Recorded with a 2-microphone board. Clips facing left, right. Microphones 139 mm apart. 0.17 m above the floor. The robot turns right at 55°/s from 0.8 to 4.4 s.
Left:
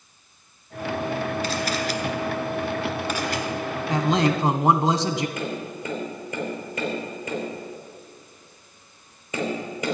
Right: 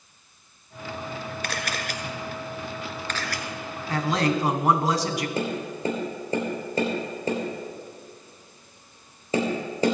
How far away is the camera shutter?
About 1.2 m.